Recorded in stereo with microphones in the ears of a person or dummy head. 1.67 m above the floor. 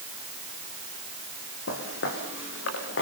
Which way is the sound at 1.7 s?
75° left (ahead or behind).